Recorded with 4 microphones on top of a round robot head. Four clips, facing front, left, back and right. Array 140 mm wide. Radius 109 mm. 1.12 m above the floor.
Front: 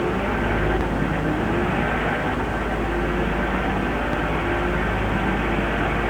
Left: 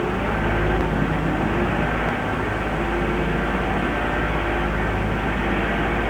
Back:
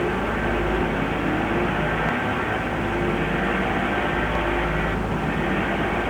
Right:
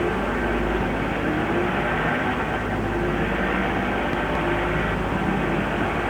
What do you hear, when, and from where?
Only background noise.